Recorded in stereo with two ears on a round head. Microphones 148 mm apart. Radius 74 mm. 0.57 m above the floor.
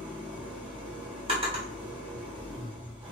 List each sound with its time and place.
0.0 s an engine running: 25° right (ahead or behind), 1.6 m
1.3 s a drawer: 35° right (ahead or behind), 1.2 m